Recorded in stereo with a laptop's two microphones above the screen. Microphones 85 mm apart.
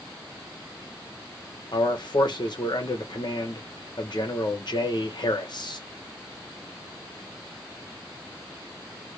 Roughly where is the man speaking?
Left.